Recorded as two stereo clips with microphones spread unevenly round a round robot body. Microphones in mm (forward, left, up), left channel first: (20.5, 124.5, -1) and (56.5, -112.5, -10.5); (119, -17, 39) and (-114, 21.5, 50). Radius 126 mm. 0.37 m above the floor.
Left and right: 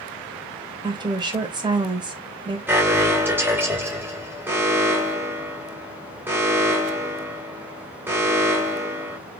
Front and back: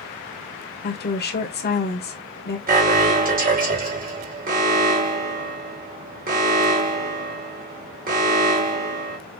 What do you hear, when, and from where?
0.8 s a woman speaking: 20° right, 1.4 m
2.7 s an alarm: 155° right, 2.5 m